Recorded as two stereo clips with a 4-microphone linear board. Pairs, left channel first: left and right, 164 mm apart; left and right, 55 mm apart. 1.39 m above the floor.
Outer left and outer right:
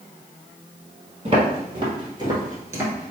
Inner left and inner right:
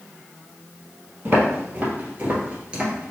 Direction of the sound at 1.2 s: 35° right (ahead or behind).